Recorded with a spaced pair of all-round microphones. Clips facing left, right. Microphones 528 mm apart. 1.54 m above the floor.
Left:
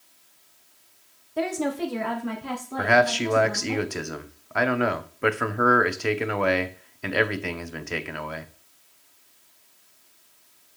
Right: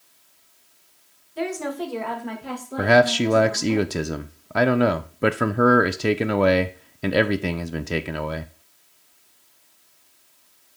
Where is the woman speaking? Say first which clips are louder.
Left 1 dB; 65° left (ahead or behind), 1.2 m; by 3.8 s centre (ahead or behind), 2.5 m.